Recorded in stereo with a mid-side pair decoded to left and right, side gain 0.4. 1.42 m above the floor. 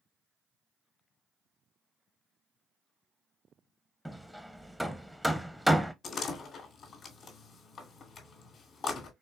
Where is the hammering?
Straight ahead, 0.8 m.